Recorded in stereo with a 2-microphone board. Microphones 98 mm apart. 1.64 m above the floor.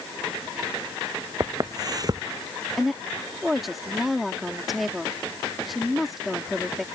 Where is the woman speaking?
Centre (ahead or behind).